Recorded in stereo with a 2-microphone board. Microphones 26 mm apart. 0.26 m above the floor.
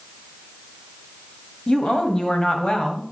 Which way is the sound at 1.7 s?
35° left (ahead or behind).